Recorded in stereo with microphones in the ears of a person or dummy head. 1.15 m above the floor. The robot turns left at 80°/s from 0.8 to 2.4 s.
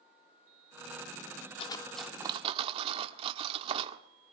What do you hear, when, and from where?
1.6 s cutlery clinking: 25° left (ahead or behind), 1.4 m; by 4.0 s 35° right (ahead or behind), 1.4 m